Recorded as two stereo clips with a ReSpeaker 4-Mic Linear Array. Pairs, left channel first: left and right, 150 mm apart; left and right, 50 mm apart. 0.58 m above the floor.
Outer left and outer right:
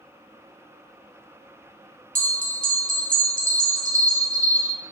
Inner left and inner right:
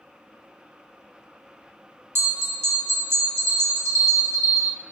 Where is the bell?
65° right (ahead or behind), 0.6 m.